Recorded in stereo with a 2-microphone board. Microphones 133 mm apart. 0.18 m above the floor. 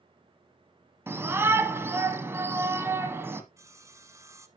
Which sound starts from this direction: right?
Sawing, at 3.6 s.